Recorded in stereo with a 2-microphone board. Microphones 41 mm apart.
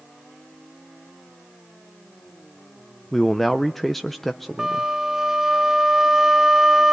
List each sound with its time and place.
3.1 s a man speaking: 5° left (ahead or behind), 0.5 m
4.6 s a flute: 10° right (ahead or behind), 0.7 m